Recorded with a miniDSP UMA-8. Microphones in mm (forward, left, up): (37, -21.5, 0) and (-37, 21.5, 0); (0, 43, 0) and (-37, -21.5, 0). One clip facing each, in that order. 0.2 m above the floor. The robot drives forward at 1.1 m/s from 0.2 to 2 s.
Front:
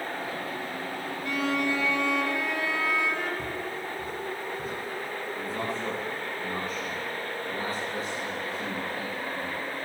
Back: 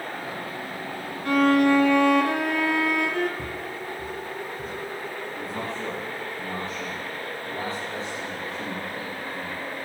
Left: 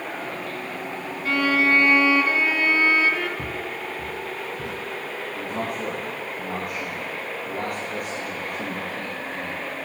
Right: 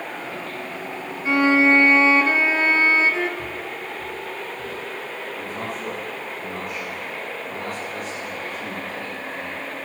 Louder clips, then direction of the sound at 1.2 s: Back 10 dB, right 4 dB; 175° left.